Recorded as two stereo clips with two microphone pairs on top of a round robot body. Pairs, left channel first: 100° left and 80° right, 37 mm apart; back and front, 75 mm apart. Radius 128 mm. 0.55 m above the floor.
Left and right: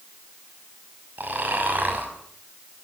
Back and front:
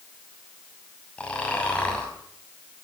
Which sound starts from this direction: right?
Snoring, at 1.2 s.